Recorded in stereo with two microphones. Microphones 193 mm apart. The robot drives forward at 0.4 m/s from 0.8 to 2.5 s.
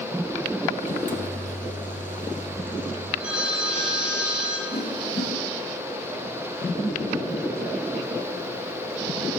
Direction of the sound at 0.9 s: 40° left (ahead or behind).